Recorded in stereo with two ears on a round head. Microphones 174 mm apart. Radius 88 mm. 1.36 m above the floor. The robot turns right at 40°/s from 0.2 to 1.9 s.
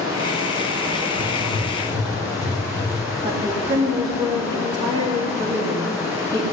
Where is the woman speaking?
25° right (ahead or behind), 3 m.